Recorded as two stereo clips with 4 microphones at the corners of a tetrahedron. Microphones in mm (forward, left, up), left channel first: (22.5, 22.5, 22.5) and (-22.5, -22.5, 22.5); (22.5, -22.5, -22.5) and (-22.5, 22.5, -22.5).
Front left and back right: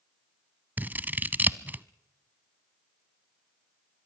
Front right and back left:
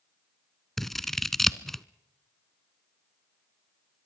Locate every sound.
0.8 s scissors: 125° right, 0.6 m